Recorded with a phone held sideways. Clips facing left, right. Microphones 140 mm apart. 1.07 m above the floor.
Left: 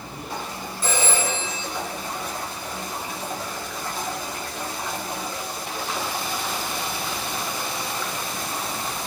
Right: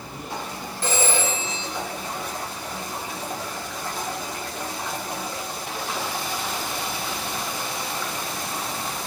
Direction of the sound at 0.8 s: 90° right.